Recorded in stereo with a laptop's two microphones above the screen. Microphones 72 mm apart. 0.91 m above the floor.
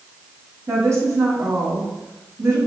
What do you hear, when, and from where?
0.7 s a woman speaking: 40° right (ahead or behind), 1.9 m